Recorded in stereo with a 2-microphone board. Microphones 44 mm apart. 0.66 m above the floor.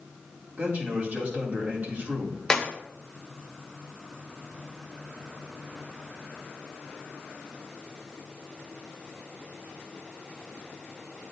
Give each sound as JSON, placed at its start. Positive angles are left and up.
{"t": 0.6, "sound": "a man speaking", "side_deg": -50, "distance_m": 1.7}
{"t": 2.5, "sound": "a clap", "side_deg": 20, "distance_m": 1.0}